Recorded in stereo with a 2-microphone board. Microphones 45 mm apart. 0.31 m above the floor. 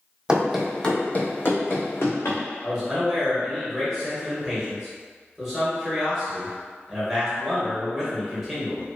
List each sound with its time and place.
0.3 s running footsteps: 20° right (ahead or behind), 0.6 m; by 2.4 s 70° left (ahead or behind), 1.2 m
2.6 s a man speaking: 5° right (ahead or behind), 1.0 m